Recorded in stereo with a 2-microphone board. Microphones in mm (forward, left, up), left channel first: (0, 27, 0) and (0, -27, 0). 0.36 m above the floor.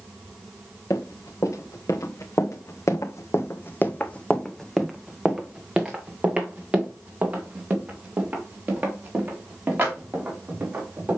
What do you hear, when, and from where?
0.9 s running footsteps: 65° left (ahead or behind), 1.8 m; by 11.2 s 35° right (ahead or behind), 4.5 m